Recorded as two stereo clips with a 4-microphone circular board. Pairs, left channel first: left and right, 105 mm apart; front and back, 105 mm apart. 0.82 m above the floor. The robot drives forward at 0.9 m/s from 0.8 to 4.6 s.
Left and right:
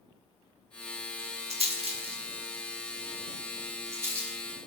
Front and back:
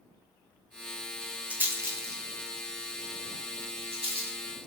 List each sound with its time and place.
1.5 s a rattle: 105° right, 1.3 m; by 4.4 s 155° right, 3 m